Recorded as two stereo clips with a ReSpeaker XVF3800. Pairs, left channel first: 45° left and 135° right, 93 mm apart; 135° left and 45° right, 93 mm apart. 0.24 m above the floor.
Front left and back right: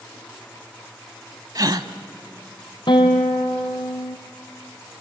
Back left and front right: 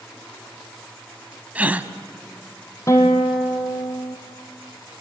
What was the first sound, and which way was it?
A gasp, 115° right.